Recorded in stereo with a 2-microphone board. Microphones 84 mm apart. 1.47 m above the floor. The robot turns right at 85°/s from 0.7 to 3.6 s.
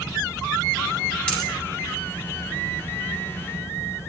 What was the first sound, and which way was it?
A dropped coin, 10° left (ahead or behind).